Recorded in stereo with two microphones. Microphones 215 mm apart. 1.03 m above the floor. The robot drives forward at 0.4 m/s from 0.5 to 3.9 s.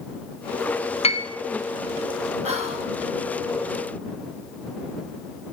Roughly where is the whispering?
Right.